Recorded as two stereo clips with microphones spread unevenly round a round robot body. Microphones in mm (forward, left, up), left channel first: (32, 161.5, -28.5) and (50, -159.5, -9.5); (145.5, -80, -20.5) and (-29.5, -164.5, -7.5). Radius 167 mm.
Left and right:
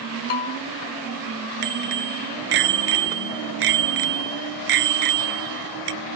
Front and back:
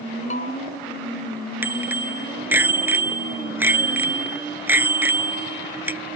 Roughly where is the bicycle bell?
Right.